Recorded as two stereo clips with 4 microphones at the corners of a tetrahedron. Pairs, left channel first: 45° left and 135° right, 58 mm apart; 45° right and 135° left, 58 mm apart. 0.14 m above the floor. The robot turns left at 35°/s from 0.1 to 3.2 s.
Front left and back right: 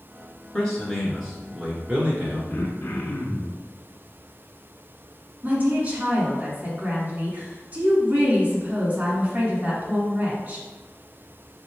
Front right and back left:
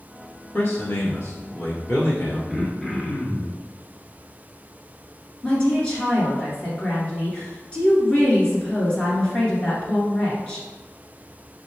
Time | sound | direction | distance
0.5 | a man speaking | 25° right | 1.7 m
2.5 | throat clearing | 50° left | 0.9 m
5.4 | a woman speaking | 105° right | 1.6 m